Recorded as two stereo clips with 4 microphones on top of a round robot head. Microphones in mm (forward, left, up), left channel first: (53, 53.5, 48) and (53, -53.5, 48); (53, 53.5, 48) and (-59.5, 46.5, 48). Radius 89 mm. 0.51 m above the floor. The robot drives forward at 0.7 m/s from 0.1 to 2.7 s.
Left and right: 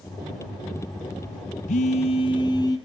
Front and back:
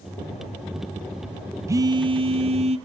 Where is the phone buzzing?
115° left, 0.5 m; by 2.8 s 155° left, 1.1 m.